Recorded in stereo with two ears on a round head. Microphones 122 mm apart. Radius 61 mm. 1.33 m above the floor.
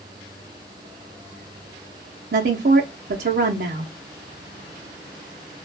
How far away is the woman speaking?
About 0.6 m.